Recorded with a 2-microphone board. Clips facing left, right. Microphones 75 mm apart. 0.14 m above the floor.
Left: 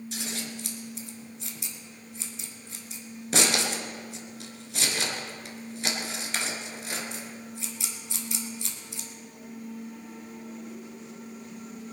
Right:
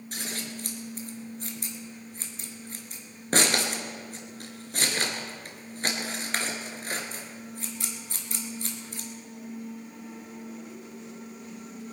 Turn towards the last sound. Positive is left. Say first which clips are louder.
# right 2 dB
turn(degrees=-45)  # may be behind; listen again after turning